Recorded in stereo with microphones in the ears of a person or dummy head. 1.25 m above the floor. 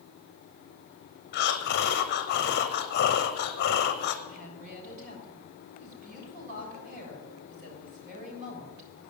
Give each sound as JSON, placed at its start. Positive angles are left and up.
{"t": 1.3, "sound": "breathing", "side_deg": 55, "distance_m": 0.8}
{"t": 4.3, "sound": "a woman speaking", "side_deg": -45, "distance_m": 6.5}